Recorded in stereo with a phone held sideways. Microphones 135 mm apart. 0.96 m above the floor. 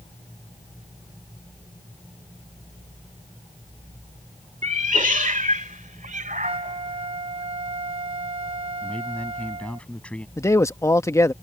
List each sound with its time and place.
4.6 s a cat meowing: 70° right (ahead or behind); by 7.4 s 85° right
6.4 s a flute: 45° right (ahead or behind)
8.8 s a man speaking: 10° left (ahead or behind)
10.4 s a man speaking: 20° left (ahead or behind)